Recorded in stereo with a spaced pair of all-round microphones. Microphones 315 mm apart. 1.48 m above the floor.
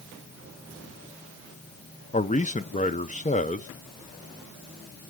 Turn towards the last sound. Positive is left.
turn(degrees=25)  # may be behind; listen again after turning